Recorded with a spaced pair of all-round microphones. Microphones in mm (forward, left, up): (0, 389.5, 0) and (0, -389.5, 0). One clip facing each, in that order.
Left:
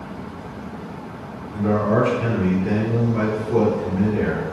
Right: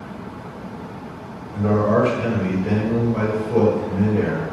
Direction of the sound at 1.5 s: 50° right (ahead or behind).